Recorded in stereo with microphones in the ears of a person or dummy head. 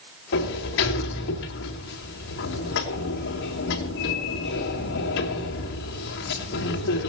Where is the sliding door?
65° left (ahead or behind), 3 m.